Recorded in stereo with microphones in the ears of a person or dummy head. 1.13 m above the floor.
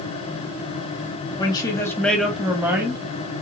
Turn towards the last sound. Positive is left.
turn(degrees=-20)  # may be behind; listen again after turning